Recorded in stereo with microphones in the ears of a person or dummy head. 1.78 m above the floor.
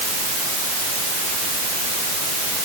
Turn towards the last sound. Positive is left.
No sound to turn to.